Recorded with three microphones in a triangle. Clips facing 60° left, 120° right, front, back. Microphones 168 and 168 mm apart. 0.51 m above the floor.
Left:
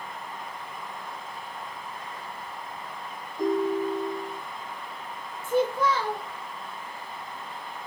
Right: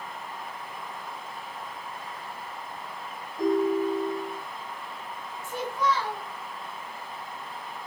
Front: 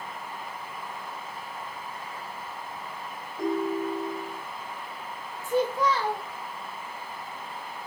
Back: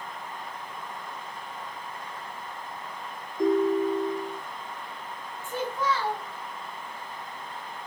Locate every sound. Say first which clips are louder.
3.4 s a ringtone: right 1 dB, back 5 dB; 50° right, 1.9 m
5.4 s a child speaking: left 5 dB, front 5 dB; 45° left, 1.3 m